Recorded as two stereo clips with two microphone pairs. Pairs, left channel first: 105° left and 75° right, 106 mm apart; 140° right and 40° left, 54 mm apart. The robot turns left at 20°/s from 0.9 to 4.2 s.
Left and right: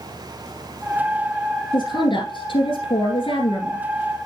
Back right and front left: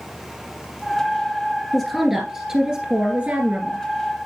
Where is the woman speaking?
135° left, 2.5 m; by 3.8 s 90° left, 2.5 m.